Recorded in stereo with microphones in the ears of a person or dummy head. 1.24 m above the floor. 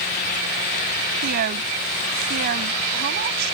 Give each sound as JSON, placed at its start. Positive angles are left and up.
{"t": 1.2, "sound": "a woman speaking", "side_deg": -50}